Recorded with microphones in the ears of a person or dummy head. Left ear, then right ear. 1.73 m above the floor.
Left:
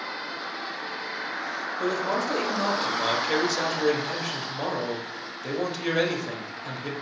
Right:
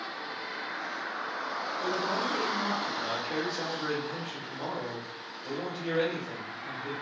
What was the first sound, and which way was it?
A man speaking, 55° left (ahead or behind).